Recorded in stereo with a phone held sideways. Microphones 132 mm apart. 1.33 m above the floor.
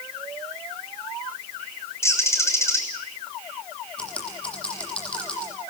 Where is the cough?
I don't hear a cough.